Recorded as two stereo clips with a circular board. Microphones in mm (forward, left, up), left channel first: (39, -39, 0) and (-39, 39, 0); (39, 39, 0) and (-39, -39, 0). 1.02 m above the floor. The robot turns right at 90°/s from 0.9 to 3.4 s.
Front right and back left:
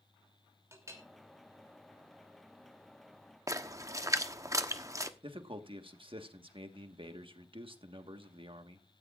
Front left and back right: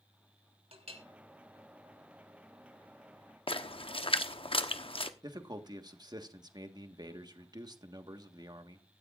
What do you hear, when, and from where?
0.7 s a clink: 160° right, 3 m; by 1.0 s 150° right, 3 m
3.5 s a splash: 75° left, 0.9 m
5.2 s a man speaking: 175° left, 1.4 m